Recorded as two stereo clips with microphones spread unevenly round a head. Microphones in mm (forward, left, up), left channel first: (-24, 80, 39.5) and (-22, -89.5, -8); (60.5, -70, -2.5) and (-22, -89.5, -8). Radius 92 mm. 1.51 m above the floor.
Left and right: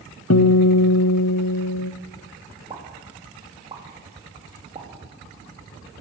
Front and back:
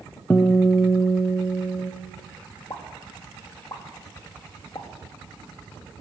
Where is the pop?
20° right, 2.5 m.